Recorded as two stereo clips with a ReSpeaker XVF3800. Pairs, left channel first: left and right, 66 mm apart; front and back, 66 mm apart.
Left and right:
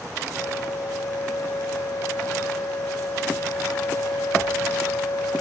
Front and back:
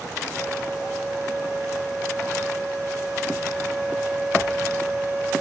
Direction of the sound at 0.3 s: 100° left.